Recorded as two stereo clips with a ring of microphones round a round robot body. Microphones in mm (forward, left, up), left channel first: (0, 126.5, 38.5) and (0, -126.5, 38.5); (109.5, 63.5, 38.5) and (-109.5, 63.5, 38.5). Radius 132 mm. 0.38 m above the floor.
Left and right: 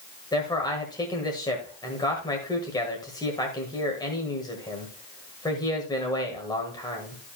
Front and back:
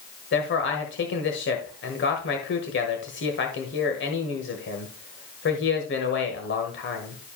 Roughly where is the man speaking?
Ahead.